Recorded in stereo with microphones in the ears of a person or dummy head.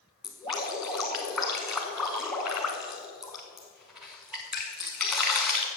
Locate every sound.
0.2 s dripping: centre (ahead or behind), 1.0 m